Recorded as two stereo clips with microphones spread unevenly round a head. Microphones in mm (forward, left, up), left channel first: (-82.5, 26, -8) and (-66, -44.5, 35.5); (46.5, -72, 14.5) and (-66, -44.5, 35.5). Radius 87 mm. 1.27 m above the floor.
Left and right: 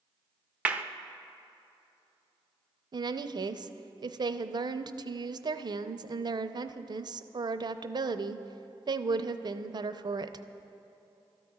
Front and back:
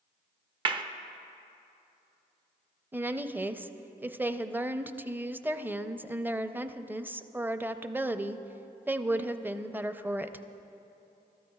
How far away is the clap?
About 1.0 m.